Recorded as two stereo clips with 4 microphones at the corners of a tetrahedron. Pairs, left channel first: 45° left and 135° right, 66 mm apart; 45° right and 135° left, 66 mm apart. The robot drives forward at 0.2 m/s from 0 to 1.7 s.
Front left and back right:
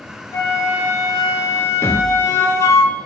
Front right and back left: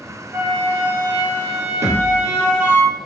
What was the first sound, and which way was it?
A flute, 70° left.